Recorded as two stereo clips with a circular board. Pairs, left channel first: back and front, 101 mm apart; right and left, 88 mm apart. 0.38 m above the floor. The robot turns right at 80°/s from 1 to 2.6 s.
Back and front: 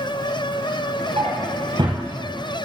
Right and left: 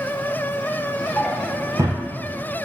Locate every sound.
1.2 s a drawer: 10° right, 3.5 m; by 2.0 s 55° left, 3.5 m